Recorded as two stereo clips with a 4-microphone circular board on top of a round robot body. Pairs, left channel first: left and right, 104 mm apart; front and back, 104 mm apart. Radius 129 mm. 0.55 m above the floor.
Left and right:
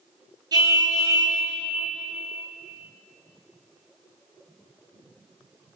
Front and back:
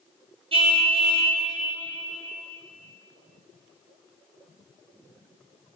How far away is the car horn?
About 6 m.